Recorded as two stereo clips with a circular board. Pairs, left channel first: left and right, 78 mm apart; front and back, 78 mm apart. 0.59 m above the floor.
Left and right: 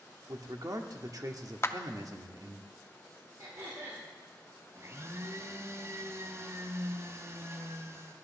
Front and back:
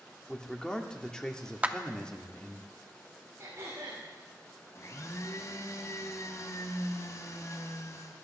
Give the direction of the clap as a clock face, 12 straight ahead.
8 o'clock.